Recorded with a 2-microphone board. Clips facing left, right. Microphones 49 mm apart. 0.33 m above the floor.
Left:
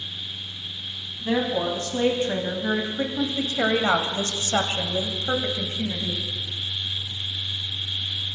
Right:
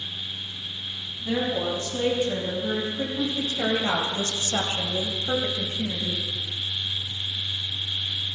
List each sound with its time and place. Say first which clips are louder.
1.2 s a woman speaking: left 2 dB; 45° left (ahead or behind), 3 m; by 6.3 s 20° left (ahead or behind), 2.5 m